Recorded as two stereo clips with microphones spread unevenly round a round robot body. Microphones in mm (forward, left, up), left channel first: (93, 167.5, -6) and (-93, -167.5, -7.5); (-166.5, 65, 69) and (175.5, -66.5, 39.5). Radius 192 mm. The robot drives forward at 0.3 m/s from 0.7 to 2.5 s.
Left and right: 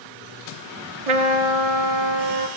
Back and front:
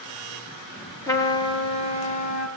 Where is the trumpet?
120° right, 1.4 m; by 2.5 s 135° right, 1.7 m.